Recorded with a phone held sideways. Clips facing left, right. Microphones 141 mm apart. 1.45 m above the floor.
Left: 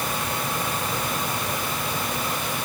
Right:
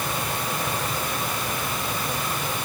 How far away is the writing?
No writing in this recording.